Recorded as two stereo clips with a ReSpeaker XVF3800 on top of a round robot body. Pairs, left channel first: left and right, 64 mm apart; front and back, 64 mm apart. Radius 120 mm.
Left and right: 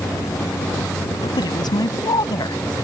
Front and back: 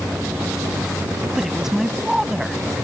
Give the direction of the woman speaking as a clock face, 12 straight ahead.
9 o'clock.